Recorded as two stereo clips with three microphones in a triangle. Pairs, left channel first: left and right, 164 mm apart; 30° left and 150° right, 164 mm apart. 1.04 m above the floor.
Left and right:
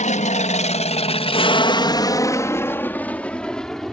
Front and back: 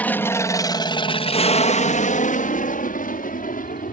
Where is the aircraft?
105° left; by 3.9 s straight ahead.